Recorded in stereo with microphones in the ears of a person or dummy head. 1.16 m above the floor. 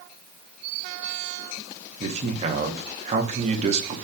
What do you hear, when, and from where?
2.0 s a man speaking: 40° right (ahead or behind), 1.8 m